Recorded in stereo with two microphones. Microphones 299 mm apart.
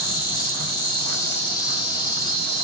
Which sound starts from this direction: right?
An insect, at 0.0 s.